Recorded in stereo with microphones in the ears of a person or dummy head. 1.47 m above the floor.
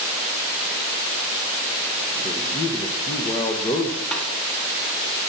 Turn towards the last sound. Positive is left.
turn(degrees=5)  # may be behind; listen again after turning